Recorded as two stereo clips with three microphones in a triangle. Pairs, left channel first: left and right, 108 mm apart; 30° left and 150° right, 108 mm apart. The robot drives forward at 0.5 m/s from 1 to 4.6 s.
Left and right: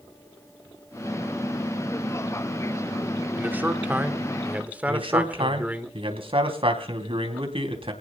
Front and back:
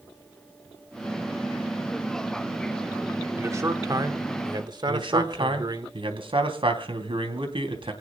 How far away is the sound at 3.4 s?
About 1.3 m.